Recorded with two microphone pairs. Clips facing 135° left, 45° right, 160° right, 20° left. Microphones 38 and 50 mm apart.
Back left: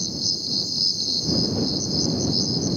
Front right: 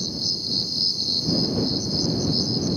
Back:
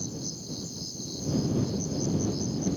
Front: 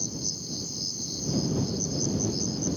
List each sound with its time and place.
0.0 s an insect: 35° left